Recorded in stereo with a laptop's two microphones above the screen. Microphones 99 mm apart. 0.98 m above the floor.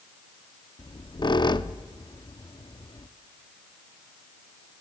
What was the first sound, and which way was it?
A squeak, 50° left (ahead or behind).